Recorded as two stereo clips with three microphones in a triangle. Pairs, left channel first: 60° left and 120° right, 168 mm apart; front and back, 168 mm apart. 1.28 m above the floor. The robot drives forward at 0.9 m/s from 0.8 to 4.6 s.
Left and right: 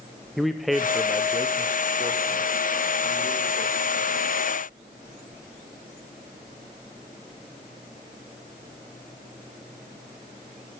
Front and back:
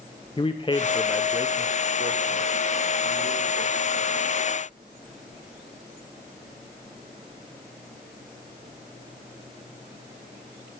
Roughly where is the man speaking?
Ahead right.